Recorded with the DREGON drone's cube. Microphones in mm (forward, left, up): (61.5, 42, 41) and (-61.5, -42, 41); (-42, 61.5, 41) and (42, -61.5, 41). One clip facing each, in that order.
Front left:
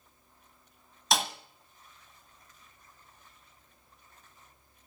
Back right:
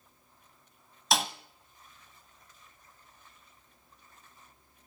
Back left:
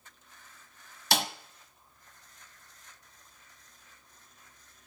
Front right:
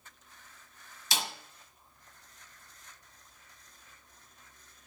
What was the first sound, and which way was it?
A snare drum, 125° left.